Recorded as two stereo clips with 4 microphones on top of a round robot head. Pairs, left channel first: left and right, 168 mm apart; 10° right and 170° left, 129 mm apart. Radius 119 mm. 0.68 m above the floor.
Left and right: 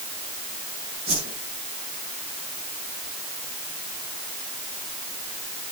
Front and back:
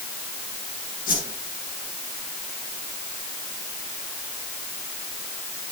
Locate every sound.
1.1 s a whoosh: 25° right, 9 m